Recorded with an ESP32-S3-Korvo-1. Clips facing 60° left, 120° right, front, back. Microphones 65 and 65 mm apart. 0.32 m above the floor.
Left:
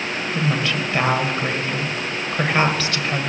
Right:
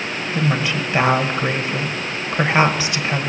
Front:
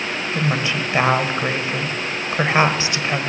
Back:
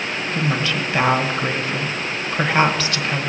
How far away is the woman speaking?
About 1.4 m.